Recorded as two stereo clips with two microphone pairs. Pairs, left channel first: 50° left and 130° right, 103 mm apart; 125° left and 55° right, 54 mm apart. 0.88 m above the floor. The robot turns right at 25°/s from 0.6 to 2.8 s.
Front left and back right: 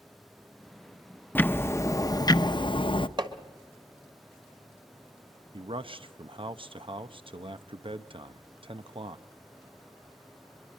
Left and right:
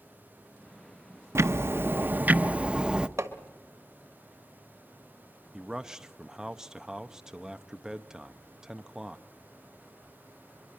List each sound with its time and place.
1.4 s ticking: 25° right, 0.5 m; by 3.1 s 15° left, 0.5 m
3.2 s hammering: 90° right, 1.6 m
5.5 s a man speaking: 135° right, 0.7 m